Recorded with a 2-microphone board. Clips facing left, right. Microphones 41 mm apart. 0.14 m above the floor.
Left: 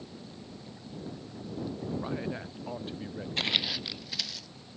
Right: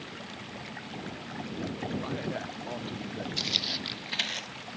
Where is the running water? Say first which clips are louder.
Right 4 dB; 80° right.